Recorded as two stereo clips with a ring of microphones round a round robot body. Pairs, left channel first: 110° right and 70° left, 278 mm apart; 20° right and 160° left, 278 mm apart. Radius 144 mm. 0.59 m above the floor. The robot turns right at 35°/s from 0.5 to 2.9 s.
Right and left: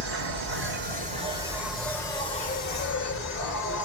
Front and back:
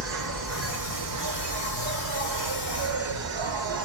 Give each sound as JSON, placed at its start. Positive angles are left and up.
{"t": 0.0, "sound": "an insect", "azimuth_deg": 115, "distance_m": 1.3}